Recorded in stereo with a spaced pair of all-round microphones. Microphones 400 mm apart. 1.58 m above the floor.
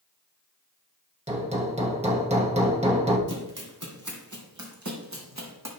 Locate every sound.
1.3 s hammering: 15° right (ahead or behind), 1.5 m
3.3 s running footsteps: 50° right (ahead or behind), 2.5 m; by 5.7 s 40° right (ahead or behind), 3 m